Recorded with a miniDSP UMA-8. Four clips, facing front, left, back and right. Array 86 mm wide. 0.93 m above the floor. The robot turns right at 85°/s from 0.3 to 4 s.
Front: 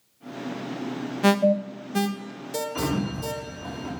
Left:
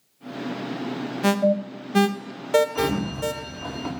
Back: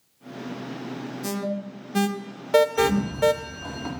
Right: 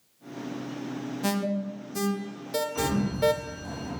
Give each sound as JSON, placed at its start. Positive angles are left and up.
{"t": 1.2, "sound": "an alarm", "azimuth_deg": 30, "distance_m": 0.7}
{"t": 2.8, "sound": "a sliding door", "azimuth_deg": 20, "distance_m": 2.5}